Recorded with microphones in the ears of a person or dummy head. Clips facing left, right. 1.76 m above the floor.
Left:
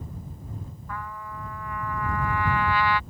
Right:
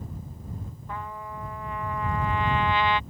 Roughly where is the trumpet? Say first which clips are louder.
Right 1 dB; right.